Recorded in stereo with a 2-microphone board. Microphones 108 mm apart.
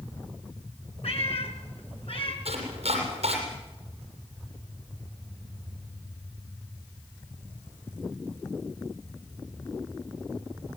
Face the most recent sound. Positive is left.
turn(degrees=-70)  # may be behind; listen again after turning